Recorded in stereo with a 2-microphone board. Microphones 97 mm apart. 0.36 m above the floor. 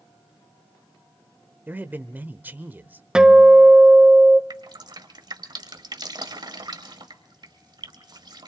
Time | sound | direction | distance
1.7 | a man speaking | 20° right (ahead or behind) | 0.9 m
3.1 | a guitar | 10° right (ahead or behind) | 0.6 m
4.5 | dripping | 45° right (ahead or behind) | 1.3 m